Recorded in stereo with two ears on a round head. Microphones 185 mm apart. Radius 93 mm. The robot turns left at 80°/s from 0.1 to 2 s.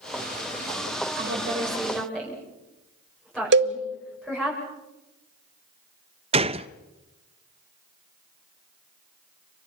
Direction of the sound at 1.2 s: 65° right (ahead or behind).